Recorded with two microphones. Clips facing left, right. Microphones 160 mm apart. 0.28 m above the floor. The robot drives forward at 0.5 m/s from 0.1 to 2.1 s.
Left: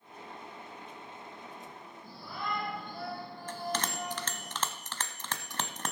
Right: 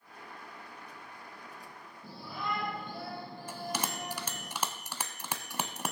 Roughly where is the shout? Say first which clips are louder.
Right 1 dB; centre.